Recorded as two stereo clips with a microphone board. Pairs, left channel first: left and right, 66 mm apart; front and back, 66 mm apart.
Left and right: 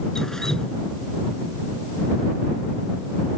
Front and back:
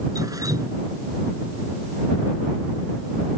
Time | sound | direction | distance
0.1 | dripping | 170° left | ?